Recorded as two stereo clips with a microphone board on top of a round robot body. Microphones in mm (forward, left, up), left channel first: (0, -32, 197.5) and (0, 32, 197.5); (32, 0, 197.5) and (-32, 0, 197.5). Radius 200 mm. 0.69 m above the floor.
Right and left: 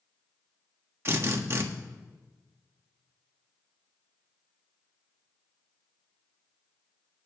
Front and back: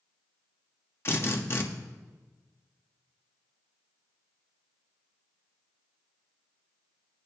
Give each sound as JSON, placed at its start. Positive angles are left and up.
{"t": 1.1, "sound": "a drill", "azimuth_deg": 45, "distance_m": 1.5}